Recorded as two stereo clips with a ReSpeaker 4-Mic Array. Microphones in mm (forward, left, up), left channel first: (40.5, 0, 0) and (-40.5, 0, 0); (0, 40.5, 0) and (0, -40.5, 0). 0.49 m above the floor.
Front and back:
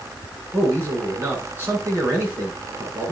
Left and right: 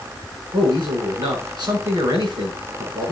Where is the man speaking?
115° right, 7 m.